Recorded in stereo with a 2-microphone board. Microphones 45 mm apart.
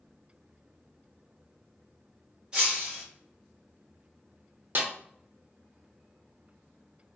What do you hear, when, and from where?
2.5 s breaking glass: 20° right (ahead or behind), 1.3 m
4.8 s a snare drum: 50° right (ahead or behind), 0.7 m